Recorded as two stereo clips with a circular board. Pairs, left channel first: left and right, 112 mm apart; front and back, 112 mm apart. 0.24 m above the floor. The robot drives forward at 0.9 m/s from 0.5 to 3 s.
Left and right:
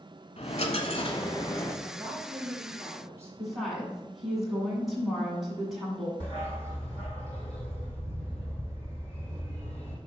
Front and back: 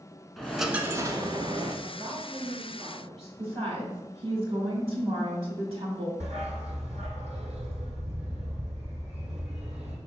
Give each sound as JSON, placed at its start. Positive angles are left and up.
{"t": 0.4, "sound": "a dropped coin", "azimuth_deg": 85, "distance_m": 0.8}
{"t": 1.8, "sound": "a woman speaking", "azimuth_deg": -140, "distance_m": 2.5}
{"t": 3.4, "sound": "a woman speaking", "azimuth_deg": 180, "distance_m": 1.9}
{"t": 6.2, "sound": "a dog barking", "azimuth_deg": 170, "distance_m": 3.0}